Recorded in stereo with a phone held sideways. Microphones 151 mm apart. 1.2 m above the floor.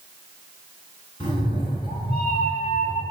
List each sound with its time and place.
1.2 s a cat meowing: 35° left (ahead or behind), 3 m; by 3.0 s 30° left (ahead or behind), 1.9 m